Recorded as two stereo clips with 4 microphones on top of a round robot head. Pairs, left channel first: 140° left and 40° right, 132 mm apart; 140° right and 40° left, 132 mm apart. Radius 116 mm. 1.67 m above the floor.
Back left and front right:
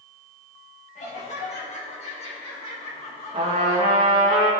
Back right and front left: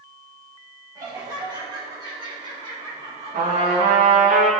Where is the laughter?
105° left, 3 m; by 4.1 s 90° left, 4.5 m.